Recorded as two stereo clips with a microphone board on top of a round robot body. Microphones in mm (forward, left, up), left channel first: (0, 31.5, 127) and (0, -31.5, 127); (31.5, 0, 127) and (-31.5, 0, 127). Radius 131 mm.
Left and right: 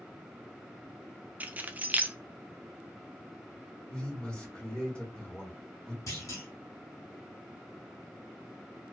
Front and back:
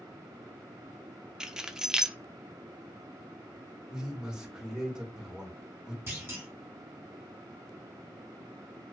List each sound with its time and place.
1.4 s keys jangling: 115° right, 0.5 m
3.9 s a man speaking: 130° left, 1.5 m
6.1 s a clunk: 125° left, 1.1 m